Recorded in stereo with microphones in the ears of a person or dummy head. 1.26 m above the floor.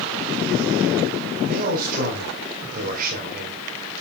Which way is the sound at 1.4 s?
50° right (ahead or behind).